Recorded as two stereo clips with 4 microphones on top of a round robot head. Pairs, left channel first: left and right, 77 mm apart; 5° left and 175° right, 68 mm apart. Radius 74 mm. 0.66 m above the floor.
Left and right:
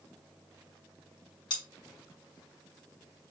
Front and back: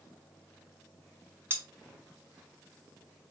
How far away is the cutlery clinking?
About 2.5 m.